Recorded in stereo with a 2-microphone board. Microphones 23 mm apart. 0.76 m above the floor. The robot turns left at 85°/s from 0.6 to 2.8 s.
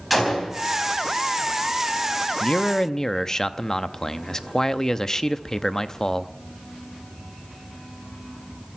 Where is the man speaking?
65° left, 0.7 m; by 6.3 s 30° left, 0.7 m.